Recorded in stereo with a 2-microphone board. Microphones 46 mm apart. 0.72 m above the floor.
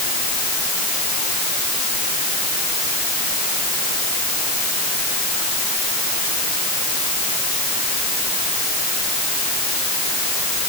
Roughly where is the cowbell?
No cowbell in this recording.